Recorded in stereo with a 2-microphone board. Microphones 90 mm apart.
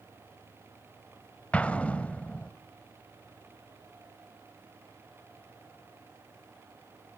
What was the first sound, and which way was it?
An explosion, 15° left (ahead or behind).